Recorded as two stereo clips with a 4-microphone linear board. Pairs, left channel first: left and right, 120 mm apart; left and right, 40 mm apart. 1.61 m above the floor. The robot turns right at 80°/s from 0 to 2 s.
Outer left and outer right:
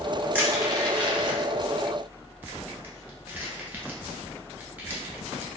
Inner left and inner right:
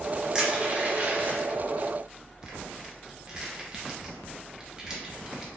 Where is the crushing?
15° right (ahead or behind), 0.9 m.